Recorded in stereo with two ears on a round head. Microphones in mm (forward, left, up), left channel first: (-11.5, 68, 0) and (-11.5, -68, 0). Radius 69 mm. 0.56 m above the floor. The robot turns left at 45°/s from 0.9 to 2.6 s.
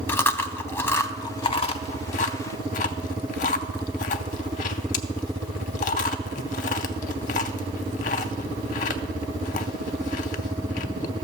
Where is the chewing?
15° left (ahead or behind), 0.5 m; by 11.1 s 50° left (ahead or behind), 0.5 m.